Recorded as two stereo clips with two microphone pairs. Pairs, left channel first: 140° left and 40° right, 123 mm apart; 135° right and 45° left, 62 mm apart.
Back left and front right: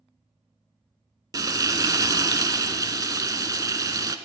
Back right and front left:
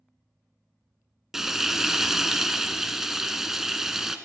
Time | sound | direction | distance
1.3 | frying | 35° right | 0.5 m